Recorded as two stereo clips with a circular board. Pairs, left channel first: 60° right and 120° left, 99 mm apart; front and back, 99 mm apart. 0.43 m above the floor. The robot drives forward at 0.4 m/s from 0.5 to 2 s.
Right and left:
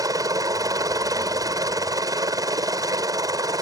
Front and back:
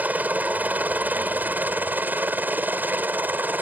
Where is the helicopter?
115° left; by 3.6 s 120° left.